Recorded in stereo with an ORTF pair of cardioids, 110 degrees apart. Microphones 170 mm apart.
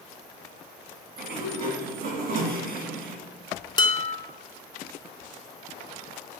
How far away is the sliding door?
About 2 m.